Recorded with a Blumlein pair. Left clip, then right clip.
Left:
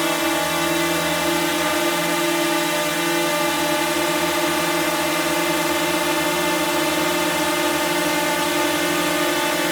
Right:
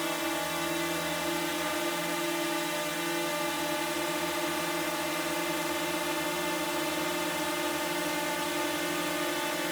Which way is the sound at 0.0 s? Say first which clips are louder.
Left 11 dB; 30° left.